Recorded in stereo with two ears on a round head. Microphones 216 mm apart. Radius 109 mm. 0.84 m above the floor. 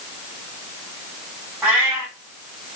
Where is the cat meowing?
10° right (ahead or behind), 1.6 m.